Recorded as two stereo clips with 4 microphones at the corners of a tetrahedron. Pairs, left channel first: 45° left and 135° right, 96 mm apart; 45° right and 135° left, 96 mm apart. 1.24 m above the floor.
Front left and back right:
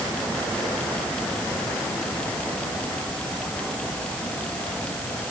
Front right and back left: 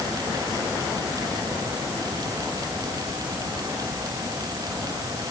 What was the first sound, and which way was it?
Only background noise.